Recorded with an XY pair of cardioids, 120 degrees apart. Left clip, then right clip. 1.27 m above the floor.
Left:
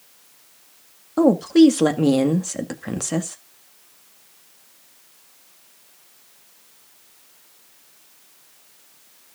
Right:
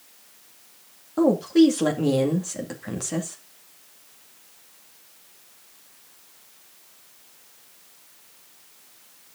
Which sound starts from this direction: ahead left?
A woman speaking, at 1.2 s.